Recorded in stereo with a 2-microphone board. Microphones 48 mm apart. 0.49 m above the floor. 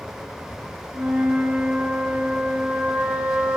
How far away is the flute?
About 2 m.